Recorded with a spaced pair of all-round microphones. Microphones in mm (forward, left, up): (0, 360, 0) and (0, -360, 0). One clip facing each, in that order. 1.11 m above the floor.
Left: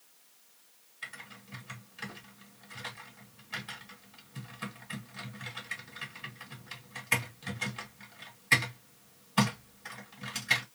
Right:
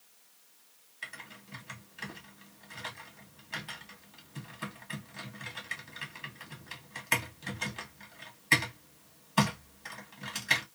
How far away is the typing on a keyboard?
About 0.8 m.